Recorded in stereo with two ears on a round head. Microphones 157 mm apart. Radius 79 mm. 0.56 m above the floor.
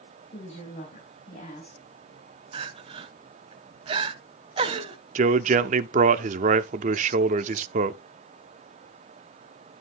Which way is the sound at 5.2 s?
45° right (ahead or behind).